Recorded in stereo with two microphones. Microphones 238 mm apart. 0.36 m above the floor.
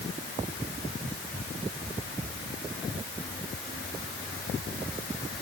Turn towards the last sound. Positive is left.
No sound to turn to.